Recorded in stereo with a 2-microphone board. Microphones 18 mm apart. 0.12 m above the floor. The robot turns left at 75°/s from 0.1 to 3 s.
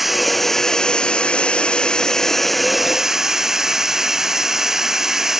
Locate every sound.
0.0 s running water: 170° right; by 5.4 s 30° right